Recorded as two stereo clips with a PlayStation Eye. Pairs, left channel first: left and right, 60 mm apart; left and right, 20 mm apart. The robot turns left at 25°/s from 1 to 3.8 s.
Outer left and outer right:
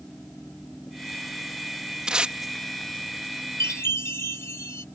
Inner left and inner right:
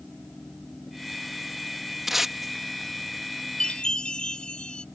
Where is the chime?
50° left (ahead or behind); by 4.8 s 45° left (ahead or behind).